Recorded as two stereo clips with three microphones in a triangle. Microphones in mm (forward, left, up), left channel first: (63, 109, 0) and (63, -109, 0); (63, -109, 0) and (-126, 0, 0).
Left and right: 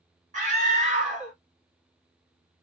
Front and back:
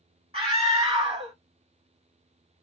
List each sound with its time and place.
0.3 s a scream: 145° right, 2.5 m